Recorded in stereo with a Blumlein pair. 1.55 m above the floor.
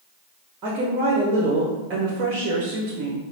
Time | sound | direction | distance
0.6 | a woman speaking | 35° right | 0.9 m